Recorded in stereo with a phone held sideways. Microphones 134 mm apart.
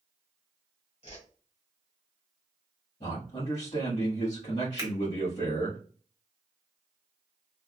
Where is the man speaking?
60° left (ahead or behind), 1.5 m.